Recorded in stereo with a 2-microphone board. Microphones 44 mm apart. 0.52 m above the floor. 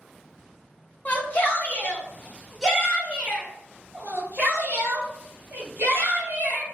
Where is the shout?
40° left (ahead or behind), 1.4 m; by 6.6 s 50° right (ahead or behind), 3 m.